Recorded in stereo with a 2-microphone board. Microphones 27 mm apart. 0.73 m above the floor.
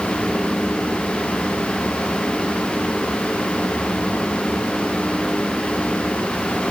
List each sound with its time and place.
Only background noise.